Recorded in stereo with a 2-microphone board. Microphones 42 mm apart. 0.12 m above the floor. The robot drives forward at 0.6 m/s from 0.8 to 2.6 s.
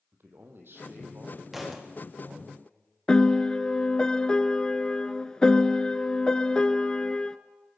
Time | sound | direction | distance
0.1 | a man speaking | 65° right (ahead or behind) | 4 m
1.5 | a thud | 5° right (ahead or behind) | 4 m
3.1 | a piano | 20° left (ahead or behind) | 0.7 m